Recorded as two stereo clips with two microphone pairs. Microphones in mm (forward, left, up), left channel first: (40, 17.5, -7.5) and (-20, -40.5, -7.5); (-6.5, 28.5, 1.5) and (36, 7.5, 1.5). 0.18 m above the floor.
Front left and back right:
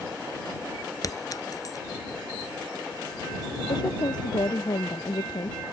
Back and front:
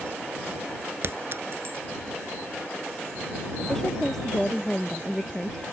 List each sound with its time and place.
1.0 s a clink: straight ahead
3.7 s a woman speaking: 75° left